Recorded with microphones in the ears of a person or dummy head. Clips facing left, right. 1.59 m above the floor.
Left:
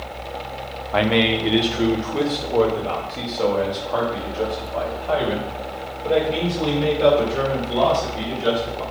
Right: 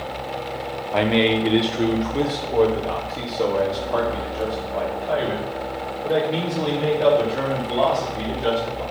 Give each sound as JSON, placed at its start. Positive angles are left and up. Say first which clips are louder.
{"t": 0.9, "sound": "a man speaking", "louder": "even", "side_deg": 5, "distance_m": 0.8}